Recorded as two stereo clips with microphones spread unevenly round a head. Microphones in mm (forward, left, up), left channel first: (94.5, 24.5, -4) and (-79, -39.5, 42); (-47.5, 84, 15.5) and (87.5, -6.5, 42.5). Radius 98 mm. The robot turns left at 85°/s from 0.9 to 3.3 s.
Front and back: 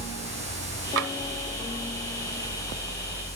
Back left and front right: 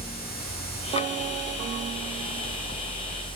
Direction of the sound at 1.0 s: 150° right.